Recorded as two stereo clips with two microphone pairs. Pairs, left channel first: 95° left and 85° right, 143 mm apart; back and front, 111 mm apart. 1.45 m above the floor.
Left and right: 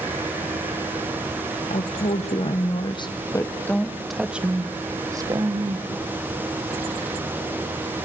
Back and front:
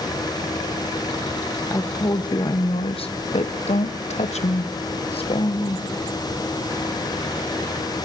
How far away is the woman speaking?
About 1.3 m.